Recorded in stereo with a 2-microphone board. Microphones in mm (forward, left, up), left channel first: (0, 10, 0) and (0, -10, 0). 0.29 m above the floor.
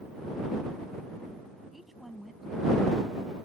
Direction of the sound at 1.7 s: 10° right (ahead or behind).